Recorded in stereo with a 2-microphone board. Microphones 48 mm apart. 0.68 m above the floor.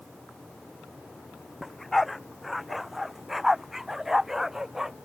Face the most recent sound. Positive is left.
turn(degrees=-10)  # may be behind; listen again after turning